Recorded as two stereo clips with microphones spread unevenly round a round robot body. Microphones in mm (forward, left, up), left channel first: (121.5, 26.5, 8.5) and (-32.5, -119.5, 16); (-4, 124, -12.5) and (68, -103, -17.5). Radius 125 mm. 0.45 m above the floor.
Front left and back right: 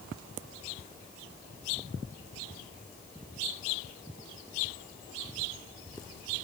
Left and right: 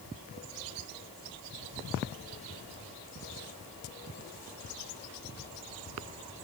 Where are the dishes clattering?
No dishes clattering in this recording.